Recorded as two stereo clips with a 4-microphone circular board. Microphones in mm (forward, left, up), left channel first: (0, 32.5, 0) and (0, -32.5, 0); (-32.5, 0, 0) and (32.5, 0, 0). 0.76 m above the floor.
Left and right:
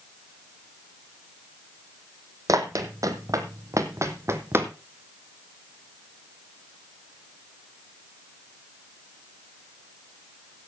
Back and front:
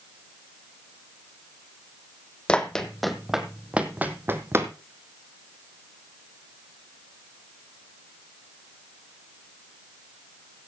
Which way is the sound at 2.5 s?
105° right.